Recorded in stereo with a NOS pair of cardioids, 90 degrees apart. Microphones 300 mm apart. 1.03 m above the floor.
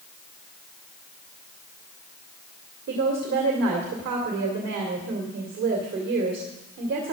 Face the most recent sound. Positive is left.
turn(degrees=-60)